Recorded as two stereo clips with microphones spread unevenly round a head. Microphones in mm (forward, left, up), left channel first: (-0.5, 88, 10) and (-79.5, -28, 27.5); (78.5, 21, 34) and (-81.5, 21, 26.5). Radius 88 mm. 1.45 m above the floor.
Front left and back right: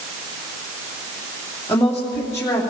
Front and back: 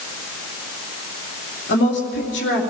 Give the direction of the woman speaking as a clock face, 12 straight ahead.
1 o'clock.